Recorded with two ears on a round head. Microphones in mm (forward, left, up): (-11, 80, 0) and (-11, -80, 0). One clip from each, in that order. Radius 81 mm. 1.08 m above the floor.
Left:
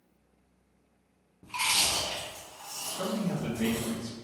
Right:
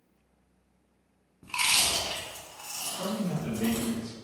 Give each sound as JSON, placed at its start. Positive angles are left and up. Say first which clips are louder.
{"t": 1.4, "sound": "chewing", "louder": "right 2 dB", "side_deg": -80, "distance_m": 1.4}
{"t": 3.0, "sound": "a man speaking", "louder": "left 2 dB", "side_deg": 50, "distance_m": 0.9}